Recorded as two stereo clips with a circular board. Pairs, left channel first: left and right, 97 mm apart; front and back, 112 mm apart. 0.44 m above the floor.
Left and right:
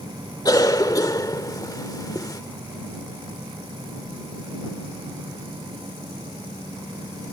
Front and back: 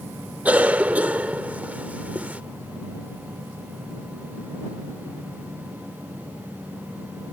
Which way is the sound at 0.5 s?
110° left.